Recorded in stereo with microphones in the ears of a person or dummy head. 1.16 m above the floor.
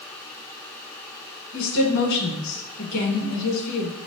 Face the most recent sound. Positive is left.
turn(degrees=65)  # may be behind; listen again after turning